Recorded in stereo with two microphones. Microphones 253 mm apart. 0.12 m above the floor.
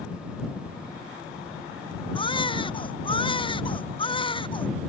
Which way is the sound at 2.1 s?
20° left (ahead or behind).